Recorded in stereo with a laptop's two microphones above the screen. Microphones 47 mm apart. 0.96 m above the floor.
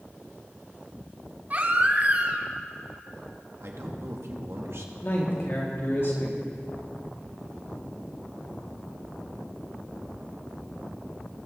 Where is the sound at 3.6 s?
65° right (ahead or behind), 1.3 m.